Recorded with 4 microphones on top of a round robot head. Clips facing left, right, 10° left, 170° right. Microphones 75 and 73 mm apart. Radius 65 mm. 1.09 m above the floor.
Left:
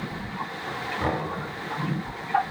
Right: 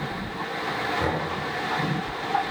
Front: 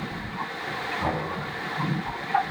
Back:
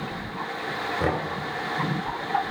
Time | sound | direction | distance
1.0 | knocking | 160° right | 2.5 m